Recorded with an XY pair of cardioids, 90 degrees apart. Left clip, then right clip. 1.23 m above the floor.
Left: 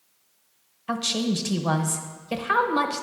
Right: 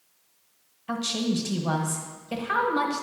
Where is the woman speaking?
35° left, 1.0 m.